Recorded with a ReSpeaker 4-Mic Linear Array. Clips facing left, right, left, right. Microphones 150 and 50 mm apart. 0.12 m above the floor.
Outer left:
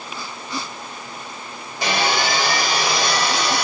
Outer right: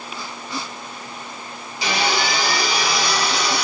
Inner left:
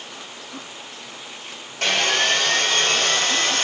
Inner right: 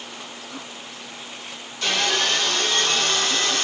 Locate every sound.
1.8 s sawing: 55° left (ahead or behind), 3 m